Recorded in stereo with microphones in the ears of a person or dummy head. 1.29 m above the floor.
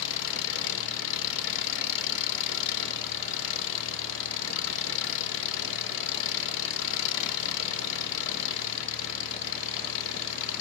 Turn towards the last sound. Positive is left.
turn(degrees=65)  # may be behind; listen again after turning